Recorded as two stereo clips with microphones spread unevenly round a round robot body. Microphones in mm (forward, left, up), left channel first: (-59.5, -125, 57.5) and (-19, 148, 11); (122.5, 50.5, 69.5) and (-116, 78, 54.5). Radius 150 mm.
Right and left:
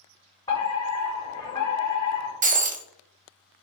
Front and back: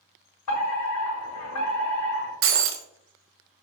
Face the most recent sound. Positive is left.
turn(degrees=140)